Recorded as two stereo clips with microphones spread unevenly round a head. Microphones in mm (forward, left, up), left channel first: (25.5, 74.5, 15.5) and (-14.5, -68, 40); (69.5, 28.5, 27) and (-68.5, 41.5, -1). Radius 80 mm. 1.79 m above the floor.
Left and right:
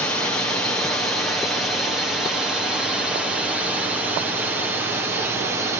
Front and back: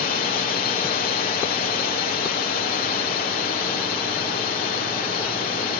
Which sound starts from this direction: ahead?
A drone, at 0.0 s.